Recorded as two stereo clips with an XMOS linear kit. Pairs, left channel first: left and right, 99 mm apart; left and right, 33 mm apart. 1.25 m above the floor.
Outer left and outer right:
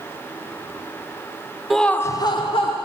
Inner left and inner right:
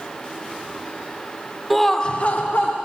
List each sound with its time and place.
1.7 s laughter: centre (ahead or behind), 0.5 m; by 2.8 s 65° left (ahead or behind), 0.7 m